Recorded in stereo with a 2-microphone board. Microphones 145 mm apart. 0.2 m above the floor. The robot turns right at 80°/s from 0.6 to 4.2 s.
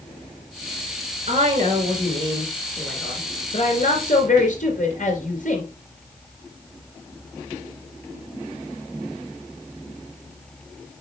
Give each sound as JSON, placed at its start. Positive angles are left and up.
{"t": 1.3, "sound": "a woman speaking", "azimuth_deg": -130, "distance_m": 3.0}